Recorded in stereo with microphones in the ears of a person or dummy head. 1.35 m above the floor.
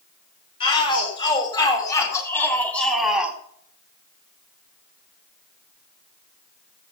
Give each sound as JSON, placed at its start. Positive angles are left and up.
{"t": 0.6, "sound": "a shout", "side_deg": 30, "distance_m": 4.5}